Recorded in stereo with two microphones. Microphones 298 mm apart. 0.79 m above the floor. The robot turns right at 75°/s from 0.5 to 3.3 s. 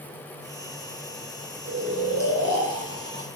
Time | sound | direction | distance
1.6 | snoring | 150° right | 3.5 m